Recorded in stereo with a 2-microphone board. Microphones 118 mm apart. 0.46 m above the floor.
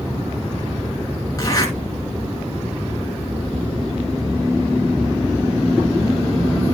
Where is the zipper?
30° left (ahead or behind), 4 m.